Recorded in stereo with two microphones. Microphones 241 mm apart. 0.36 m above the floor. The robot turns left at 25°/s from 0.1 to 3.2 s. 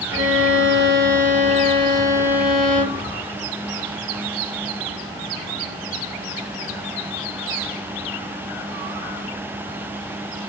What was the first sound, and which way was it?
A violin, 115° right.